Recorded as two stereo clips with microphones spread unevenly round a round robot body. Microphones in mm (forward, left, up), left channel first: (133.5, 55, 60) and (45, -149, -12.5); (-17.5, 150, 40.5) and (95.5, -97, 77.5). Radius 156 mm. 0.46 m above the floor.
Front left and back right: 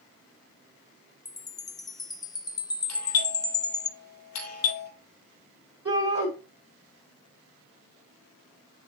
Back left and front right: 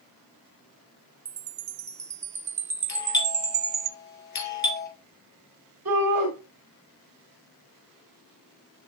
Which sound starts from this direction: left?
A doorbell, at 2.9 s.